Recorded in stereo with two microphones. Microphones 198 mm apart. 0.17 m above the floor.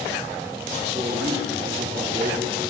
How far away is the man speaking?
About 4.5 m.